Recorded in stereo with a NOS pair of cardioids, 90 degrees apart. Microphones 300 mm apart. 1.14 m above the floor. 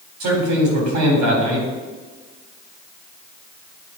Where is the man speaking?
70° right, 4 m.